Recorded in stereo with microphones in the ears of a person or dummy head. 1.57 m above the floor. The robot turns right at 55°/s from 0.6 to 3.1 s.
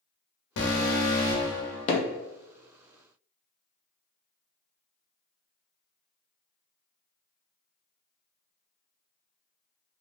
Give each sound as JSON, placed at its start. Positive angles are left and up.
{"t": 0.6, "sound": "an alarm", "azimuth_deg": 105, "distance_m": 0.9}
{"t": 1.9, "sound": "hammering", "side_deg": 40, "distance_m": 0.6}